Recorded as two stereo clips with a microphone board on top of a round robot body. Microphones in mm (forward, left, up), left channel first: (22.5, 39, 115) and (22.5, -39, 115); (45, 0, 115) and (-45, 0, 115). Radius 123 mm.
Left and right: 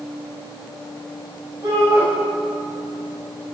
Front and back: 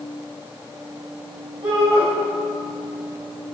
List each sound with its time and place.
1.6 s a shout: 145° right, 7.5 m